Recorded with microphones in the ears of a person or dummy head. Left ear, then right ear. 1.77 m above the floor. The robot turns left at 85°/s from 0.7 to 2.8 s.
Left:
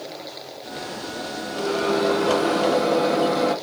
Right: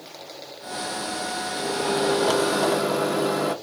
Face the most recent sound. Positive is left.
turn(degrees=-100)